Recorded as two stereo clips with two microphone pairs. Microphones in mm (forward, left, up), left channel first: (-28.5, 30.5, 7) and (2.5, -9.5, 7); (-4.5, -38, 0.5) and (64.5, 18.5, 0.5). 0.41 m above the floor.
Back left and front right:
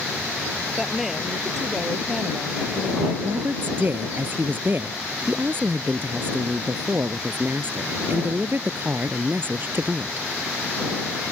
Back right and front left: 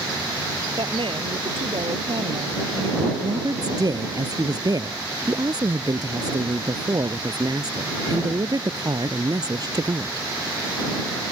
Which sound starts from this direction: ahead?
A woman speaking, at 3.2 s.